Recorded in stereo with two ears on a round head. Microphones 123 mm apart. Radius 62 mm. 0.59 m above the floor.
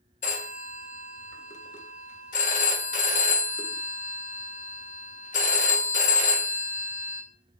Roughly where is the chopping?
I don't hear chopping.